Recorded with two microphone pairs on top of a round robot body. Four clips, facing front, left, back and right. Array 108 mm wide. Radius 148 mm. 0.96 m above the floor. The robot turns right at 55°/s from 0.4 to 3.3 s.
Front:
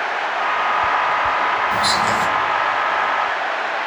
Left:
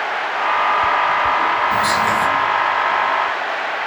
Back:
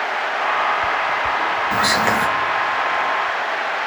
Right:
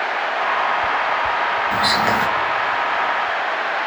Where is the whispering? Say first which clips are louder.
Left 1 dB, even; straight behind, 1.6 m; by 2.3 s 150° right, 1.6 m.